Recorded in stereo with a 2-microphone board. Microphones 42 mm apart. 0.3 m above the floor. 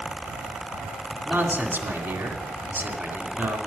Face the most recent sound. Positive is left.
turn(degrees=-60)  # may be behind; listen again after turning